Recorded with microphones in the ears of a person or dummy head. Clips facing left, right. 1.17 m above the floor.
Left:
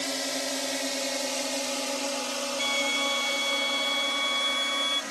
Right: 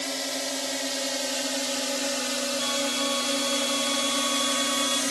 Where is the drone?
Centre (ahead or behind); by 5.1 s 45° right (ahead or behind).